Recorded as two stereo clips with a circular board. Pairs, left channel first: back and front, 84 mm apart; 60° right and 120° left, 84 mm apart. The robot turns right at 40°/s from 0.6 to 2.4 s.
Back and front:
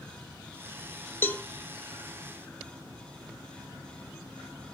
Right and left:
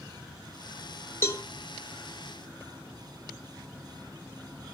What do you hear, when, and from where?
1.2 s a cowbell: 120° right, 1.6 m; by 1.4 s 110° right, 1.6 m